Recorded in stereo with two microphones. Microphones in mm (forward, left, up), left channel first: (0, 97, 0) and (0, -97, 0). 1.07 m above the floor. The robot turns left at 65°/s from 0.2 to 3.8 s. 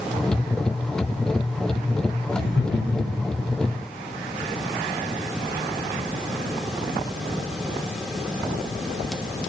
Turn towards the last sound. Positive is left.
turn(degrees=30)